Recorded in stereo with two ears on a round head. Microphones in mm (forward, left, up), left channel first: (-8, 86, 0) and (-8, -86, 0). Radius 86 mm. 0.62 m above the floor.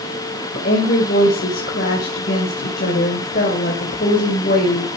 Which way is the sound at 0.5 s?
50° left (ahead or behind).